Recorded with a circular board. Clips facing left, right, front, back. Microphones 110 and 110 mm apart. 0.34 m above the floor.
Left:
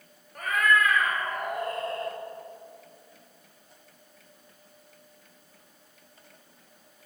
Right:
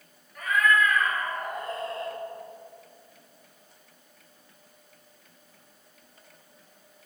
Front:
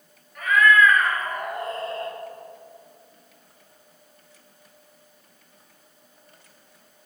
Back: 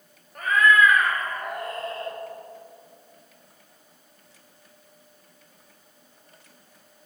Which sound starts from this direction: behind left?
A cat meowing, at 0.3 s.